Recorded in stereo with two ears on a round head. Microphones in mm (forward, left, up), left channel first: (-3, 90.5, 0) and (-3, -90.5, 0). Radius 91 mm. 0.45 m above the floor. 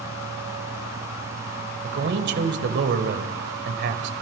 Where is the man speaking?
55° right (ahead or behind), 2 m.